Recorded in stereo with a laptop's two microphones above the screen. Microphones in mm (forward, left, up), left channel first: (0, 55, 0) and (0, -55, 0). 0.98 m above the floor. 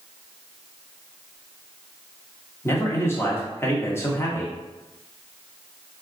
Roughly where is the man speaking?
Left.